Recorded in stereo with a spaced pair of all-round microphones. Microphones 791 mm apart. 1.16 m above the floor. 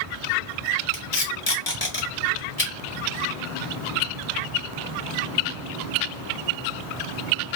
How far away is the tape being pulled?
About 1.1 m.